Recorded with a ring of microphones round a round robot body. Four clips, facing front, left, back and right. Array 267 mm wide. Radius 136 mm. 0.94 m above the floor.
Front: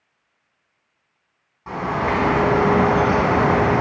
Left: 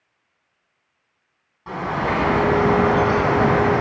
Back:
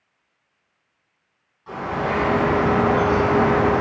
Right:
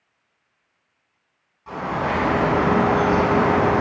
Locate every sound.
1.7 s a bird: 35° left, 2.5 m